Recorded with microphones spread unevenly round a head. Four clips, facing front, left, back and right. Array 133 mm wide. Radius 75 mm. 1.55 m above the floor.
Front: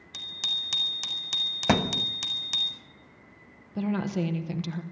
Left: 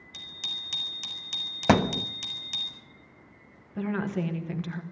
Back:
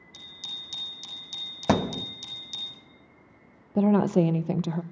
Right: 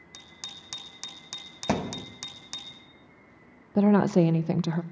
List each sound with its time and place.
0.1 s a bicycle bell: 20° right, 5 m
1.7 s a thud: 110° left, 0.8 m
3.8 s a woman speaking: 130° right, 0.9 m